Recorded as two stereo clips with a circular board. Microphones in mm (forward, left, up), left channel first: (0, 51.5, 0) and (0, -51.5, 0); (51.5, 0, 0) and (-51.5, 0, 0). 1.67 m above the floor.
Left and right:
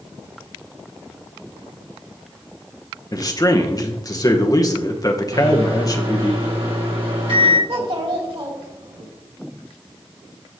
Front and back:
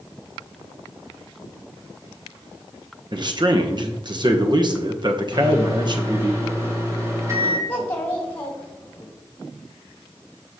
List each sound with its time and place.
3.1 s a man speaking: 140° left, 1.2 m
5.3 s a microwave: 120° right, 2.5 m
7.7 s a child speaking: 70° right, 2.5 m